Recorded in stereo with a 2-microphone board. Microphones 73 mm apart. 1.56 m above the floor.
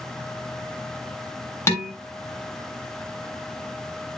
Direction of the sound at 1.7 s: 40° left (ahead or behind).